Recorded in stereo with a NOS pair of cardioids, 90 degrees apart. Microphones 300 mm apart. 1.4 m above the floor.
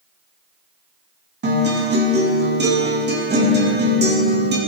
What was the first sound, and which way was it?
A guitar, 35° right.